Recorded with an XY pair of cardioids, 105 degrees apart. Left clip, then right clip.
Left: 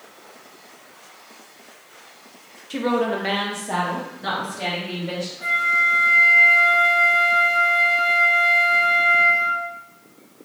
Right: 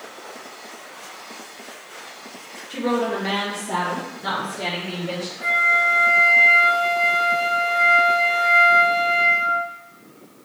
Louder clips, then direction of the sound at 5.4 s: Right 1 dB; 15° left.